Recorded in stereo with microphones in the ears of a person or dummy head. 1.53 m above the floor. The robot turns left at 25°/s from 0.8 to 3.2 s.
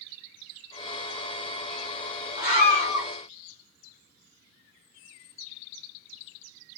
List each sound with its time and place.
2.4 s a scream: 55° left (ahead or behind), 1.5 m; by 3.1 s 70° left (ahead or behind), 1.5 m